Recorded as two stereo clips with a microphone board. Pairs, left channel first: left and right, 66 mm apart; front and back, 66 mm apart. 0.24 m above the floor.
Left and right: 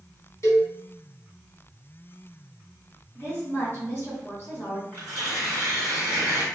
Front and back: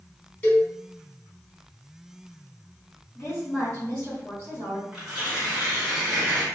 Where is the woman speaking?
60° left, 1.9 m.